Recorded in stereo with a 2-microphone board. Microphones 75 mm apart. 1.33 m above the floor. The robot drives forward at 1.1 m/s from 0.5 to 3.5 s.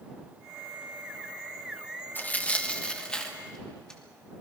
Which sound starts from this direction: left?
Tearing paper, at 2.1 s.